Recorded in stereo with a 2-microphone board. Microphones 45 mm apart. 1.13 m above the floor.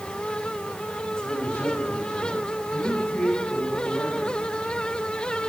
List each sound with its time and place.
1.2 s a man speaking: 40° left (ahead or behind), 8.5 m; by 4.3 s 55° left (ahead or behind), 8.5 m